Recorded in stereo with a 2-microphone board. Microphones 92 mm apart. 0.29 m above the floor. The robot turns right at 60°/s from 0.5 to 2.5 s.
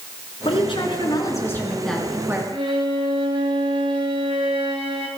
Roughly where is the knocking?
I don't hear knocking.